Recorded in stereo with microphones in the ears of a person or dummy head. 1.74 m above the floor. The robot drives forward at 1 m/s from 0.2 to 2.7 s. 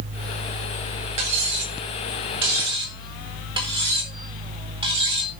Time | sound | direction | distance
1.2 | cutlery clinking | 35° right (ahead or behind) | 2.5 m